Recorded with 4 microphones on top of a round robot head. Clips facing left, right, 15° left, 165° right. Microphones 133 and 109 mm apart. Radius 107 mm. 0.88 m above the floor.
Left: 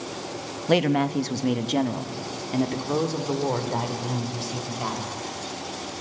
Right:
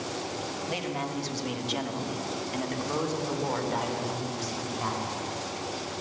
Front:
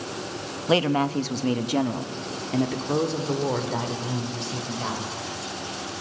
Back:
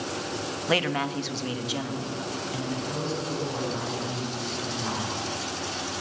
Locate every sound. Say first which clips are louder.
0.7 s a man speaking: left 14 dB, front 6 dB; 80° left, 0.9 m; by 5.1 s 25° left, 3.5 m